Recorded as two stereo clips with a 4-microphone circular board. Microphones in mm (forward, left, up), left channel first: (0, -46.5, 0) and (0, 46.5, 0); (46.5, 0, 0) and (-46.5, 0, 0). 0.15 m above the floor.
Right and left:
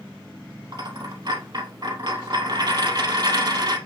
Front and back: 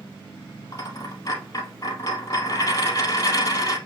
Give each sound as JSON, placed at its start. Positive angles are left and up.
{"t": 0.7, "sound": "a dropped coin", "azimuth_deg": 50, "distance_m": 2.0}